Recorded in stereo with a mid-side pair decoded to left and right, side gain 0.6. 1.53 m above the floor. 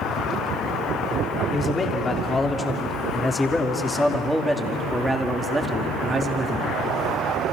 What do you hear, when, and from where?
1.5 s a man speaking: 30° left, 4 m; by 6.8 s 35° right, 3 m